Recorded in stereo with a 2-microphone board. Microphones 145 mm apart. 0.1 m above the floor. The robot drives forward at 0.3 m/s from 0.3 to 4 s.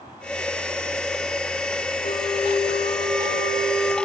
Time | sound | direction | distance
2.0 | a flute | 60° left (ahead or behind) | 5.5 m